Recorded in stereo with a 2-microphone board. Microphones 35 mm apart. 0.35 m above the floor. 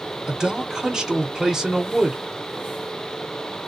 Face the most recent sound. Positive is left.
turn(degrees=-20)  # may be behind; listen again after turning